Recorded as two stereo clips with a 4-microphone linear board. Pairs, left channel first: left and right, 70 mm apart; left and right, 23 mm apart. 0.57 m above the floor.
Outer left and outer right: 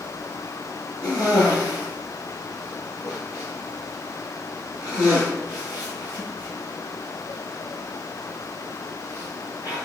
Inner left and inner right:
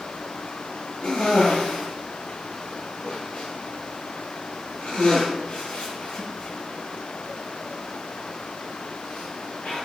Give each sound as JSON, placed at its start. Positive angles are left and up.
{"t": 1.0, "sound": "a cough", "side_deg": 65, "distance_m": 7.5}